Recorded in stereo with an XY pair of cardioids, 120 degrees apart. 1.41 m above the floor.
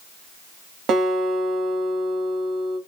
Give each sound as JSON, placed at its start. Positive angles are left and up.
{"t": 0.9, "sound": "a guitar", "azimuth_deg": -60, "distance_m": 1.1}